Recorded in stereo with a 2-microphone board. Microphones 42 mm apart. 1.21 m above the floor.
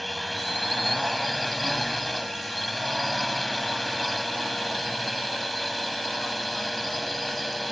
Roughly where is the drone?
Centre.